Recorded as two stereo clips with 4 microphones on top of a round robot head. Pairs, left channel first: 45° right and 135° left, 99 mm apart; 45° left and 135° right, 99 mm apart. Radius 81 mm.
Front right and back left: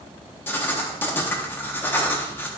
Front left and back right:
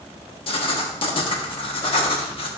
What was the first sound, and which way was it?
Writing, 20° left.